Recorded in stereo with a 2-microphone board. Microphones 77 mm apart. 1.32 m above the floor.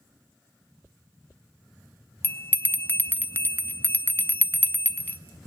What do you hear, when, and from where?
2.2 s a bell: 30° left (ahead or behind), 0.6 m